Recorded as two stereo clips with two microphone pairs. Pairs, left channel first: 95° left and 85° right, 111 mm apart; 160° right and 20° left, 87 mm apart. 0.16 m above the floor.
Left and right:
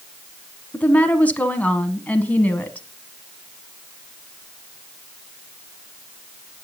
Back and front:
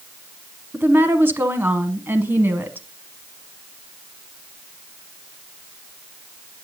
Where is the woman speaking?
40° left, 1.1 m.